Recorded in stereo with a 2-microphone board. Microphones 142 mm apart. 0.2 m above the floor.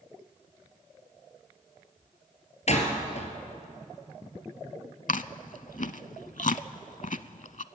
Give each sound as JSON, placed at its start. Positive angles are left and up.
{"t": 2.7, "sound": "a door slam", "side_deg": 55, "distance_m": 2.5}
{"t": 5.1, "sound": "chewing", "side_deg": 65, "distance_m": 0.5}